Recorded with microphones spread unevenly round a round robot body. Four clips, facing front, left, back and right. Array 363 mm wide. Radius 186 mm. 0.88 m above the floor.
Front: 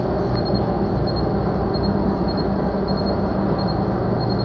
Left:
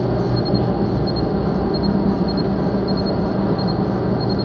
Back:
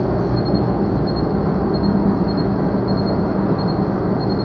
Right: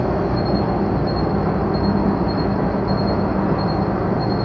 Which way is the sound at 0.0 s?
155° left.